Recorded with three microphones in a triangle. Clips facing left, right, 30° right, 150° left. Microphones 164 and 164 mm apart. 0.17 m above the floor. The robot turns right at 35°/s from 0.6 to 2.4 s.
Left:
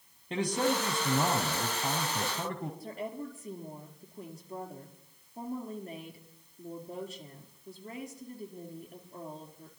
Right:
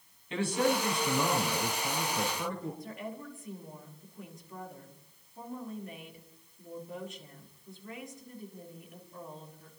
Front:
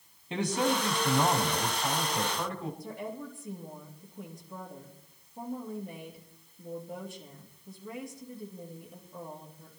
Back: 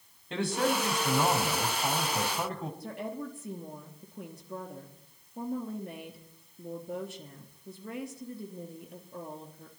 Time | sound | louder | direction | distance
0.3 | a man speaking | right 1 dB, even | 45° left | 4 m
2.8 | a woman speaking | left 3 dB, back 2 dB | 145° left | 3.5 m